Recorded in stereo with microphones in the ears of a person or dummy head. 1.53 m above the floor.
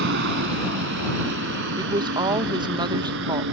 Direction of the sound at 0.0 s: 60° right (ahead or behind).